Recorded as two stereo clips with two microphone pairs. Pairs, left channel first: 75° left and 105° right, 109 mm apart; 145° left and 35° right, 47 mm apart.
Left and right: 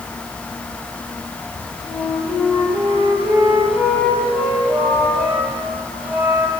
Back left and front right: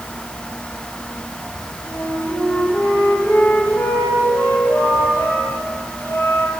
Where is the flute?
175° left, 2 m.